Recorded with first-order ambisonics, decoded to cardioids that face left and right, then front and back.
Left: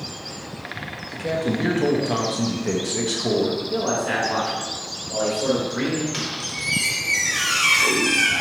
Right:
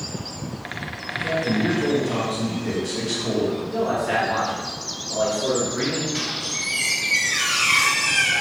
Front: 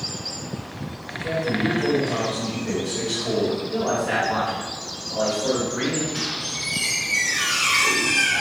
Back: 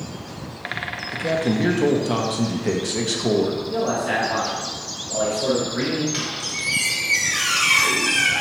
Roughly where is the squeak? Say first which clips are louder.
Right 1 dB, back 1 dB; behind left.